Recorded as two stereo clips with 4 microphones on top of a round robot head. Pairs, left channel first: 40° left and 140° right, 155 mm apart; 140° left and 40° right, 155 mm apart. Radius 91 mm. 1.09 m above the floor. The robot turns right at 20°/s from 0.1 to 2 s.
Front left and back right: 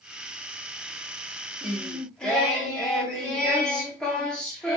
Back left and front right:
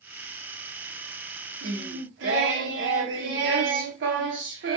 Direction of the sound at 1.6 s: 55° right.